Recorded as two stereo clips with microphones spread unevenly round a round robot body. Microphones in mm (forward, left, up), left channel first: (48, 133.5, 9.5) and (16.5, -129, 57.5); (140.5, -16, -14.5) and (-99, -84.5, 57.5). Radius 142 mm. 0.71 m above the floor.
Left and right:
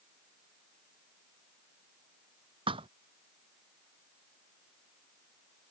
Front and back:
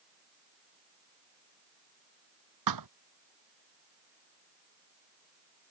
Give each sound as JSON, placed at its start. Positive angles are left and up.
{"t": 2.7, "sound": "a thud", "azimuth_deg": -170}